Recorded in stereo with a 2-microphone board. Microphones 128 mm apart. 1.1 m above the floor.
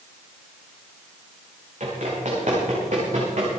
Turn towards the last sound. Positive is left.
turn(degrees=-65)  # may be behind; listen again after turning